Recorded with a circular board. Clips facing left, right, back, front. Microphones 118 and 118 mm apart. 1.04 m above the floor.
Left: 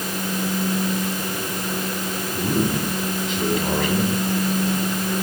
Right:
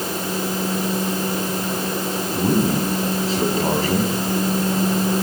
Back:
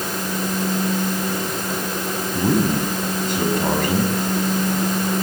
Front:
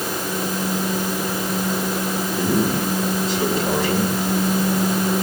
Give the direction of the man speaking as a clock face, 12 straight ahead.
5 o'clock.